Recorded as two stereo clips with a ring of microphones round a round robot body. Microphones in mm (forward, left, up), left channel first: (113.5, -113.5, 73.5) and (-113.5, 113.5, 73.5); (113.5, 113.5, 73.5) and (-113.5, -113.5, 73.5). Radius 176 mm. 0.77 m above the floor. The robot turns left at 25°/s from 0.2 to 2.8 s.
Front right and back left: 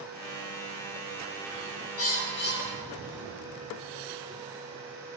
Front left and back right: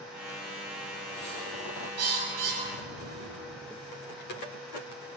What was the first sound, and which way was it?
A bird, 90° right.